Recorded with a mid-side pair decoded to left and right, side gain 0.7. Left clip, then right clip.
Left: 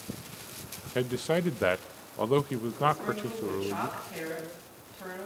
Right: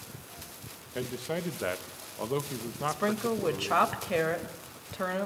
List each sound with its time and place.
0.9 s a man speaking: 30° left, 1.6 m
2.9 s a woman speaking: 60° right, 5.5 m